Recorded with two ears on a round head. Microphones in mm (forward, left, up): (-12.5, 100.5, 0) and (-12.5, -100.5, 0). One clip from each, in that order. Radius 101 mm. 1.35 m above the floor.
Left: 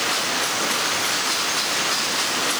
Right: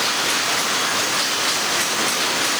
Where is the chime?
No chime in this recording.